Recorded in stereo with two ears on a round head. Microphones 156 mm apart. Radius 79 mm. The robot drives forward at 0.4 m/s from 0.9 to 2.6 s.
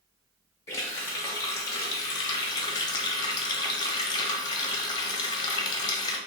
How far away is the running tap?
About 1.0 m.